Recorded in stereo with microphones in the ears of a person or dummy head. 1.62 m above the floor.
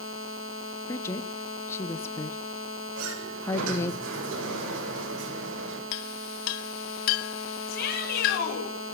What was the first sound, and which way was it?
A woman speaking, 25° left (ahead or behind).